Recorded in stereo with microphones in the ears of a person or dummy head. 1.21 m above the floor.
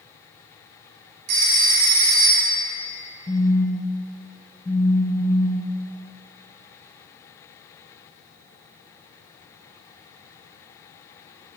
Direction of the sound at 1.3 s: 55° right (ahead or behind).